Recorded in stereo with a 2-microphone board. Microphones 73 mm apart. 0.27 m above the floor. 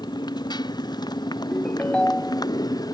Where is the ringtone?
15° left (ahead or behind).